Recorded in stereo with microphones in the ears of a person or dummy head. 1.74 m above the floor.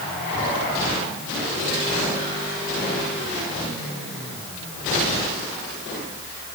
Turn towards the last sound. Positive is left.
No sound to turn to.